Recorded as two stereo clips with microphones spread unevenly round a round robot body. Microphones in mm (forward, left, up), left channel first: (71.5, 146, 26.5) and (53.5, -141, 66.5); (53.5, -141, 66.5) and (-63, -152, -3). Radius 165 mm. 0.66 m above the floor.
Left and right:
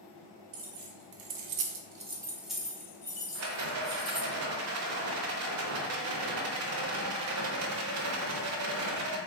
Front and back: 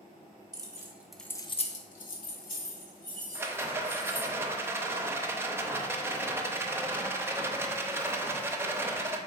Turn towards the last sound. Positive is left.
turn(degrees=-80)